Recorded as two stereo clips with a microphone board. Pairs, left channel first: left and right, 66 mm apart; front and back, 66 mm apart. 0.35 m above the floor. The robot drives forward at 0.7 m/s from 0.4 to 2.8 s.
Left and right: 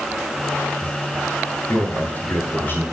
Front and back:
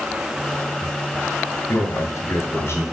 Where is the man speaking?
30° left, 2.5 m; by 2.8 s 40° left, 1.8 m.